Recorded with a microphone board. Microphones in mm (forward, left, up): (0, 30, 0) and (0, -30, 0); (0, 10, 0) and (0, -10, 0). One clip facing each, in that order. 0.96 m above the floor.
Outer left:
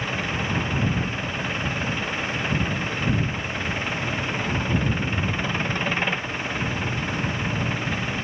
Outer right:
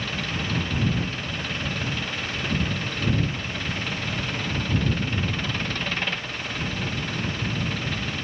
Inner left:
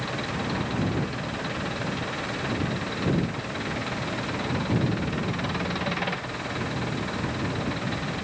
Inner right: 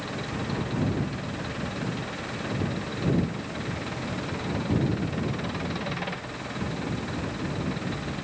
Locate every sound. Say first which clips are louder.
0.0 s an engine running: outer left 3 dB, inner left 3 dB; 20° left (ahead or behind)